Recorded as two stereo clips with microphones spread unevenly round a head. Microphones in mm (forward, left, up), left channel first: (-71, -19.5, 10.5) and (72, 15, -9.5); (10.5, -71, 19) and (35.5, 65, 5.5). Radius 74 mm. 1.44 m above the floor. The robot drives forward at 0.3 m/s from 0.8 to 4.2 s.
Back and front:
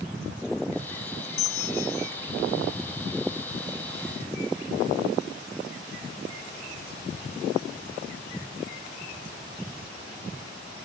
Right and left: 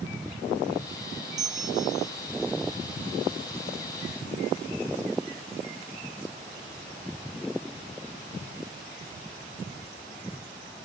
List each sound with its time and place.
1.4 s a bell: 145° left; by 2.1 s 150° left